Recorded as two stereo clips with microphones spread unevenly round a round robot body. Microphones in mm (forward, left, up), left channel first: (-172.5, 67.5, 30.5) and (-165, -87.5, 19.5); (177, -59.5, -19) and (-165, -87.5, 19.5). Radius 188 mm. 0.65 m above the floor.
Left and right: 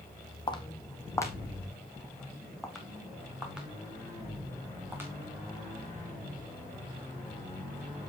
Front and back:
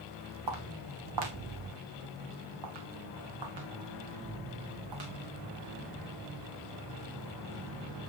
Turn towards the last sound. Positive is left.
turn(degrees=-165)